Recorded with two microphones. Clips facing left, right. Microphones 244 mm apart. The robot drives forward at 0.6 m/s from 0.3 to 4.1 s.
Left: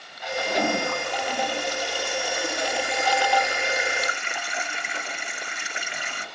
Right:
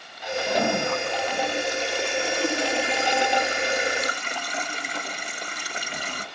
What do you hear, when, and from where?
0.5 s a toilet flushing: 20° right (ahead or behind), 3 m; by 6.3 s 40° right (ahead or behind), 1.5 m